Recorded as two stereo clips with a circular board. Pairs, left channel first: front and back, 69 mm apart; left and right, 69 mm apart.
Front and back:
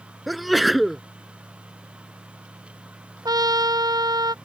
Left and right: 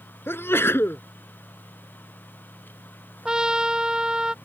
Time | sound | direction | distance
0.3 | a sneeze | 90° left | ?
3.2 | a trumpet | 170° right | ?